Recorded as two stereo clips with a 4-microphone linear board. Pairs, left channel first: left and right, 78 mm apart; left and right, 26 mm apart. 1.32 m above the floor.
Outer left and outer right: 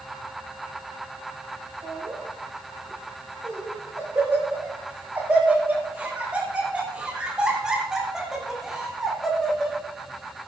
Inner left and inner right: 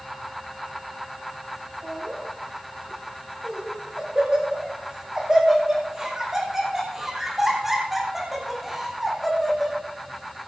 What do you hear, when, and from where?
1.8 s laughter: 50° right (ahead or behind), 7.5 m; by 9.8 s 5° left (ahead or behind), 4.5 m